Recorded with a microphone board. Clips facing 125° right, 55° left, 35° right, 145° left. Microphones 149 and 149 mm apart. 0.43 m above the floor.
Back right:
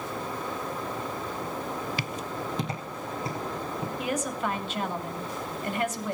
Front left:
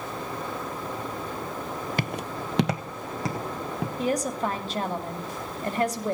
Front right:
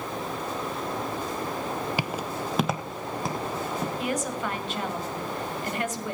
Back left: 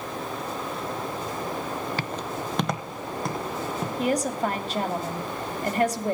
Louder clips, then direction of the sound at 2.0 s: Front left 2 dB, front right 1 dB; 40° left.